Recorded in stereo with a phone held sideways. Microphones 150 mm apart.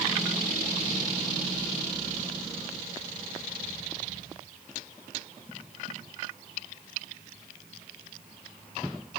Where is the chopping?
No chopping in this recording.